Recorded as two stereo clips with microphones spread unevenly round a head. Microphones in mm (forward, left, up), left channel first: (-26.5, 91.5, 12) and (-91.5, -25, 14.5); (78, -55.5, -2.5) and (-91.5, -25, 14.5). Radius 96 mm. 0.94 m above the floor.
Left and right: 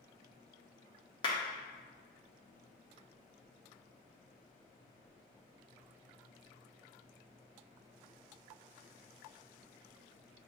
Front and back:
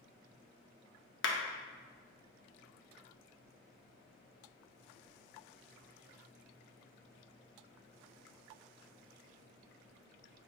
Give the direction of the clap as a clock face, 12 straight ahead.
12 o'clock.